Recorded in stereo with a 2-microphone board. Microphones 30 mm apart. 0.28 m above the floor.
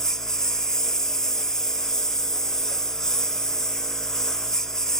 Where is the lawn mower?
20° left (ahead or behind).